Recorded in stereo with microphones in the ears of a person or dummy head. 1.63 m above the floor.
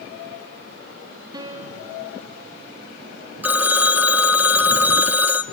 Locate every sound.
1.3 s a piano: 25° right (ahead or behind), 2.0 m
3.4 s a phone ringing: 10° right (ahead or behind), 1.0 m